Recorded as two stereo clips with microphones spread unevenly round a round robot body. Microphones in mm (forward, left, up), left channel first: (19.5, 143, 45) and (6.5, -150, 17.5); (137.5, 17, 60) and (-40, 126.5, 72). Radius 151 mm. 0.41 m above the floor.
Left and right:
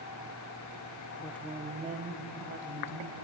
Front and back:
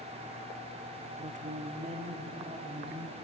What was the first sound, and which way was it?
A woman speaking, 155° left.